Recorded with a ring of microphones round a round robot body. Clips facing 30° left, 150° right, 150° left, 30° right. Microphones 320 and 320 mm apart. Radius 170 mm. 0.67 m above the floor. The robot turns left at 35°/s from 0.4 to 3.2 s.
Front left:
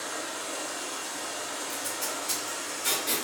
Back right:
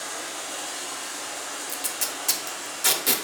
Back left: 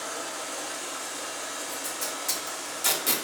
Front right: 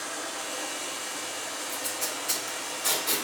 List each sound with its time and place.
0.0 s running water: 170° right, 1.6 m; by 3.2 s 95° left, 1.6 m
1.7 s tape being pulled: 120° right, 0.7 m; by 3.1 s 170° right, 0.7 m